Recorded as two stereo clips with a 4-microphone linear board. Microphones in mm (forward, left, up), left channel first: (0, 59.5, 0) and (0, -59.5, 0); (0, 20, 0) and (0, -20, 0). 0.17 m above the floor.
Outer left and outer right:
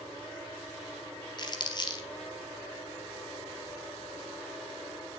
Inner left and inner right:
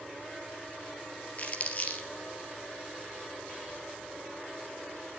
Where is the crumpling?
40° left (ahead or behind), 2.5 m.